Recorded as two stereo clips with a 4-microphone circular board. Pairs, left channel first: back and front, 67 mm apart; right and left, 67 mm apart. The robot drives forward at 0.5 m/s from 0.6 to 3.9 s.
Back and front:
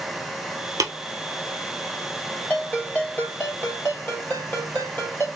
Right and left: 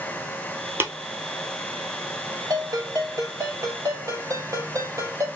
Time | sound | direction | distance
0.8 | tapping | 35° left | 1.3 m
2.5 | a ringtone | 110° left | 3 m